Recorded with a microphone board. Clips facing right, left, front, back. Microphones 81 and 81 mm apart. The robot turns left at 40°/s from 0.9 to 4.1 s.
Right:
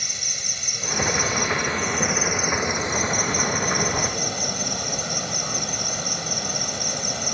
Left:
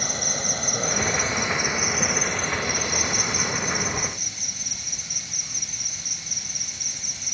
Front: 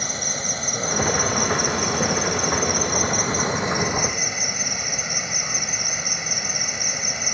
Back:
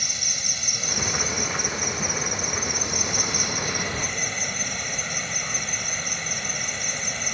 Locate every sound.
0.0 s an insect: 45° left; by 7.3 s 80° right